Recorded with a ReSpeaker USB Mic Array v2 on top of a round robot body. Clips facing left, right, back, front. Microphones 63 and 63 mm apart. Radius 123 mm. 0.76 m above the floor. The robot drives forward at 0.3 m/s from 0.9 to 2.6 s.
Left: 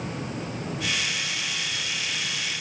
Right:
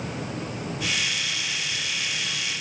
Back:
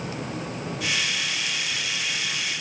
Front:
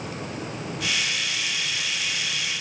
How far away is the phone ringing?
I don't hear a phone ringing.